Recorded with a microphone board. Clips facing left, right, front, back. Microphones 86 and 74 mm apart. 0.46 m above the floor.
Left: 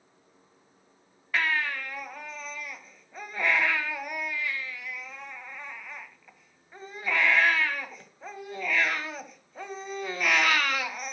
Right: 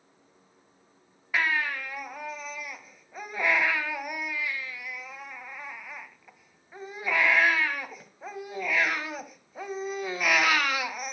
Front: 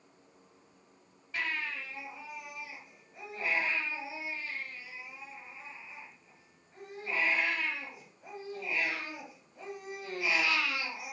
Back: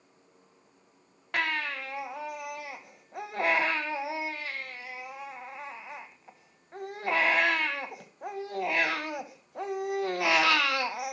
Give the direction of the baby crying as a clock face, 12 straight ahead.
6 o'clock.